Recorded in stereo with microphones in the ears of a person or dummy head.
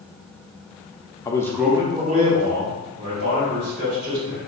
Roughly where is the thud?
I don't hear a thud.